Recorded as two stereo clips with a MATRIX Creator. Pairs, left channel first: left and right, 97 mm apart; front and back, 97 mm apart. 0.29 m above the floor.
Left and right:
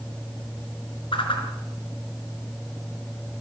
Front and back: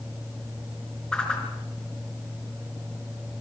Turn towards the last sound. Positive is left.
turn(degrees=80)